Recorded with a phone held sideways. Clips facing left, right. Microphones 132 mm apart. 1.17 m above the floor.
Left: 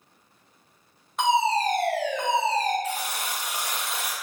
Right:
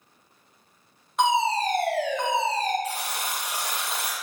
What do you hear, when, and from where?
1.2 s a fire alarm: centre (ahead or behind), 1.5 m
2.8 s a buzzer: 35° right (ahead or behind), 0.9 m